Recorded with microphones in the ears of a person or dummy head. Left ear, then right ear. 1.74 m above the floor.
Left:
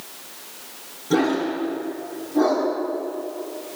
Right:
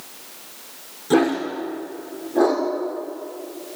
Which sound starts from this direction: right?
A dog barking, at 1.1 s.